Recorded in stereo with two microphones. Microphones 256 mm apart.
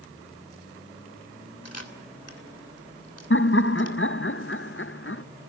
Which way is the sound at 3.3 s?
50° left (ahead or behind).